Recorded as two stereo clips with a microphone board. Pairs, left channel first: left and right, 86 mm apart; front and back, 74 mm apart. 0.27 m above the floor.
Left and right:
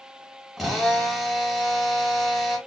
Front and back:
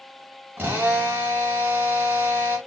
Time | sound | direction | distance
0.6 | a drill | 175° right | 1.4 m